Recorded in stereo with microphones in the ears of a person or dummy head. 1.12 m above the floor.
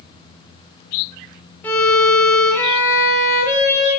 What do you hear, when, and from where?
1.6 s a violin: 15° left (ahead or behind), 0.6 m